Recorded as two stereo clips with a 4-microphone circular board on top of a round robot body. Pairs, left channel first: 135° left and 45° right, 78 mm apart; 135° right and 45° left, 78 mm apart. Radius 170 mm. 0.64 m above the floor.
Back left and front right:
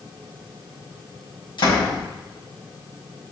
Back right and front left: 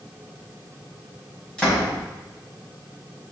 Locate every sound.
1.6 s a door slam: 145° left, 5 m